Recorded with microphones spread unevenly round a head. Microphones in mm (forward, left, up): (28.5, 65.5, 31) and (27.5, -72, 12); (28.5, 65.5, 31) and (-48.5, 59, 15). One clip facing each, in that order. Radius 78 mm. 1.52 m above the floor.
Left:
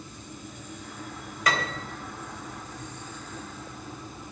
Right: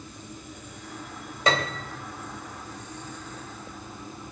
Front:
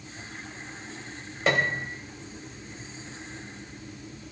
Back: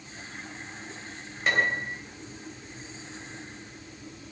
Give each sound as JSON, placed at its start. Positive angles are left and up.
{"t": 1.5, "sound": "a piano", "azimuth_deg": -25, "distance_m": 3.0}